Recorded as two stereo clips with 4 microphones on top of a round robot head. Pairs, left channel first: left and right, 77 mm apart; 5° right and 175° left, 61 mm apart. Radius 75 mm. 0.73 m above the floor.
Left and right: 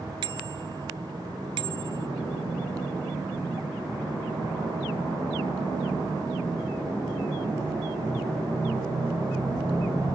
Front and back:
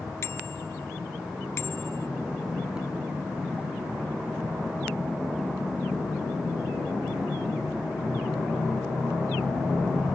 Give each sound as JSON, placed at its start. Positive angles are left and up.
{"t": 0.2, "sound": "a bicycle bell", "azimuth_deg": -60}